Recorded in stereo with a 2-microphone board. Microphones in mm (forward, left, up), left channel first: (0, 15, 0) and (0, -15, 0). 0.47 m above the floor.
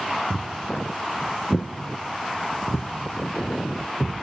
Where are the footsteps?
25° right (ahead or behind), 1.4 m; by 4.2 s 75° left (ahead or behind), 1.8 m.